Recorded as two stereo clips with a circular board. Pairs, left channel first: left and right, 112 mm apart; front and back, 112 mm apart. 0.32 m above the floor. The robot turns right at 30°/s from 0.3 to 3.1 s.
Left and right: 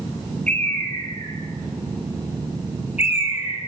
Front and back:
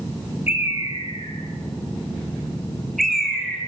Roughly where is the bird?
Ahead.